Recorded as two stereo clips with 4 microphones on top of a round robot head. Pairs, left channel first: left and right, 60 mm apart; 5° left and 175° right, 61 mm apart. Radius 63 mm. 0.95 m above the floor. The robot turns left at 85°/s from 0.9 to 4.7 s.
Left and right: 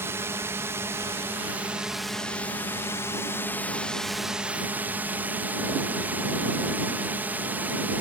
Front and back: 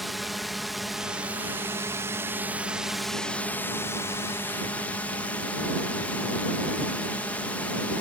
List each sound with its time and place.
0.0 s a drone: 85° right; by 8.0 s 45° right